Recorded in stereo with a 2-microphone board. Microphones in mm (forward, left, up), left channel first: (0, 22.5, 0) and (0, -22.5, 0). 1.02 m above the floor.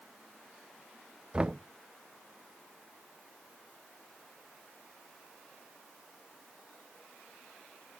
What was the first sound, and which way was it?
Knocking, 20° right (ahead or behind).